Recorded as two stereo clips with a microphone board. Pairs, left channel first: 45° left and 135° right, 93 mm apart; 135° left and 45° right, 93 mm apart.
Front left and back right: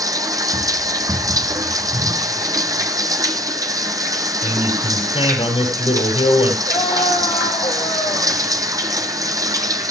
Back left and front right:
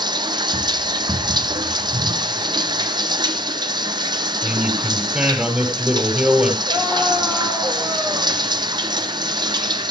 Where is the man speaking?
35° left, 5.5 m.